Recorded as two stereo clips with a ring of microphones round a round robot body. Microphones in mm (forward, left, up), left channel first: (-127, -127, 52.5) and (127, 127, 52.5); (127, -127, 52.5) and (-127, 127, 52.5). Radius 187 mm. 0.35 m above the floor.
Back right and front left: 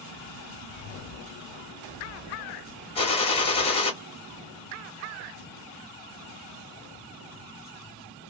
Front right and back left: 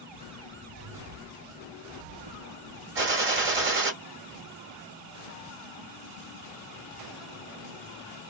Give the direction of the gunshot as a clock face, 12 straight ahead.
7 o'clock.